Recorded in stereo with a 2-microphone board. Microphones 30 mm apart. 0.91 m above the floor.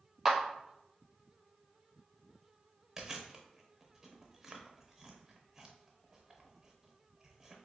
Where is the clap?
10° right (ahead or behind), 0.8 m.